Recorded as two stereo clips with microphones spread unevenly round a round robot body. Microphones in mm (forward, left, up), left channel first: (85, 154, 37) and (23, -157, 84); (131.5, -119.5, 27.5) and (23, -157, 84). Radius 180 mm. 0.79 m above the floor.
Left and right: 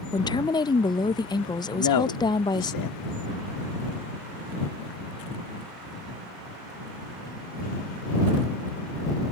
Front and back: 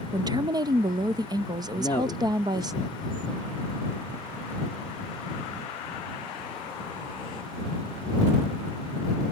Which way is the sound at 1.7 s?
80° left.